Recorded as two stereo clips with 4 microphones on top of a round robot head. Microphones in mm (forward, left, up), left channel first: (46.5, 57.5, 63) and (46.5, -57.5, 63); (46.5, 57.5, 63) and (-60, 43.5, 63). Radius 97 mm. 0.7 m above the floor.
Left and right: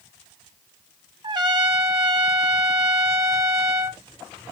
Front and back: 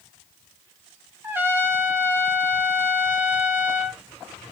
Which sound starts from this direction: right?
A trumpet, at 1.2 s.